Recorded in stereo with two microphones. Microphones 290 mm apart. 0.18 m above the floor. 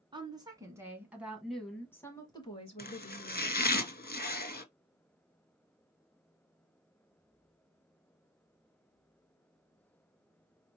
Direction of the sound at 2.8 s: 30° left (ahead or behind).